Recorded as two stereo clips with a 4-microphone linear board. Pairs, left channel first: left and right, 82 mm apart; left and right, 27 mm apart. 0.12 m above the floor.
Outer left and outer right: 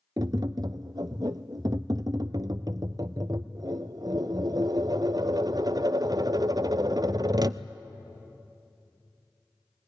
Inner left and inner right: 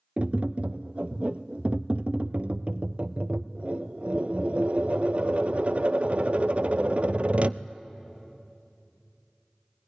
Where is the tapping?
50° right (ahead or behind), 0.5 m.